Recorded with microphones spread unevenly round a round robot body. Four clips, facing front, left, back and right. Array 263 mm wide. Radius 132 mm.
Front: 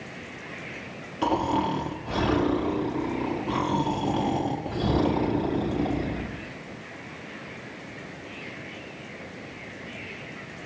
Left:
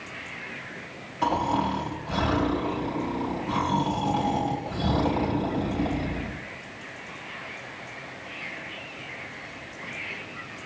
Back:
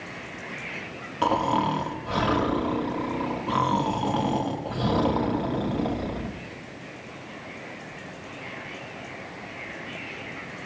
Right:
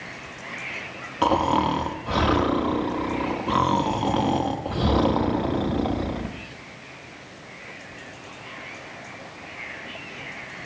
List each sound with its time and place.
1.2 s snoring: 65° right, 1.4 m